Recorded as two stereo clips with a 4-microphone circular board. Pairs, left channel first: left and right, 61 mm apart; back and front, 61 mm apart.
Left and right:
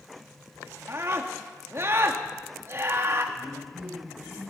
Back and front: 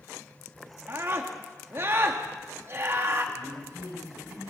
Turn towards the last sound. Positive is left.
turn(degrees=-25)